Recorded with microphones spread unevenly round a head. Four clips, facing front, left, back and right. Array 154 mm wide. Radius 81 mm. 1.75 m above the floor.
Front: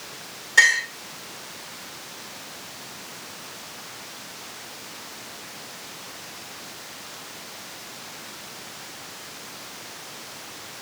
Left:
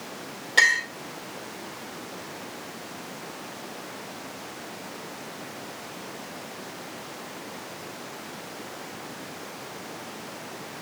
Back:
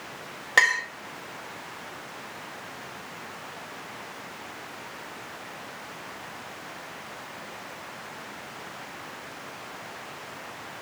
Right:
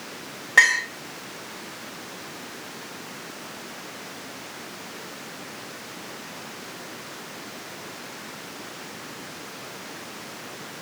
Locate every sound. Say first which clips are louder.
0.6 s a clink: right 3 dB, front 3 dB; 170° right, 1.7 m